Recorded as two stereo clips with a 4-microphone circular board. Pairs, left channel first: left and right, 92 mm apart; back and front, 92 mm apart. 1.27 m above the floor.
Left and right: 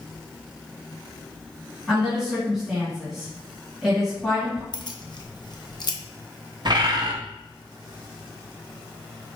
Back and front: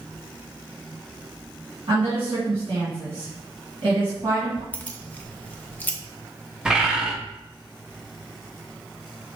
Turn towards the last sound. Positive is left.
turn(degrees=-80)